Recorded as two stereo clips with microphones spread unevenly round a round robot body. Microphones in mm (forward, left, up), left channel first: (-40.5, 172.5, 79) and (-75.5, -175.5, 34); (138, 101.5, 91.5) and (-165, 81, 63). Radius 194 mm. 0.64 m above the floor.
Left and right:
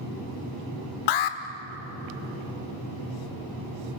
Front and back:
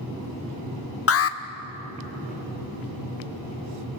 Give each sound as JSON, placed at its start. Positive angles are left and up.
{"t": 1.1, "sound": "an alarm", "azimuth_deg": 50, "distance_m": 1.1}